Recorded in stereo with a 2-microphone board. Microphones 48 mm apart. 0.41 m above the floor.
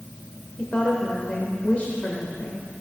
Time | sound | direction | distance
0.6 | a woman speaking | 30° left (ahead or behind) | 1.3 m